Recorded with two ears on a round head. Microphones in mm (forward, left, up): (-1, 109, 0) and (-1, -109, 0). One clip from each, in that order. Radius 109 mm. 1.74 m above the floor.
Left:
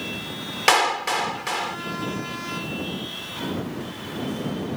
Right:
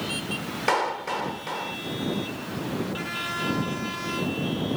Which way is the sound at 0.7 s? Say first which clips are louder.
Left 6 dB; 70° left (ahead or behind).